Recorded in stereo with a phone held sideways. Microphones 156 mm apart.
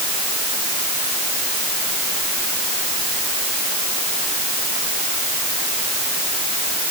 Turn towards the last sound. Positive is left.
No sound to turn to.